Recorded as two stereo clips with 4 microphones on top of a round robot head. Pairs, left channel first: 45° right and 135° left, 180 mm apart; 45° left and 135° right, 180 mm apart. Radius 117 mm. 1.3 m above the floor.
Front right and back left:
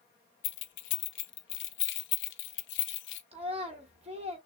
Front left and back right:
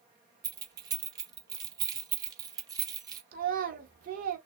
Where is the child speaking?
170° right, 1.7 m.